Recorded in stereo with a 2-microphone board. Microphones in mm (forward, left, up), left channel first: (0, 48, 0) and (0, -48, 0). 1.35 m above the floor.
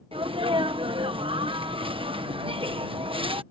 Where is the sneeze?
70° right (ahead or behind).